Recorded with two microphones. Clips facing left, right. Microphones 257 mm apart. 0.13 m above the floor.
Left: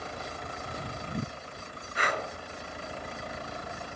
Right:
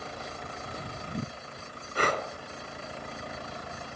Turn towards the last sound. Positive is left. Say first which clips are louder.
# right 4 dB
turn(degrees=-45)  # may be behind; listen again after turning